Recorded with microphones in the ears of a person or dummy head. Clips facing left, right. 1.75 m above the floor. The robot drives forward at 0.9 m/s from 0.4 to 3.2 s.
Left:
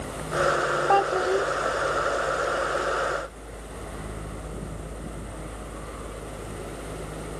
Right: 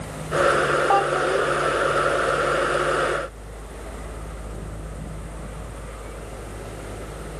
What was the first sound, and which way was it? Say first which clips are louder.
A child speaking: right 1 dB; 10° left (ahead or behind).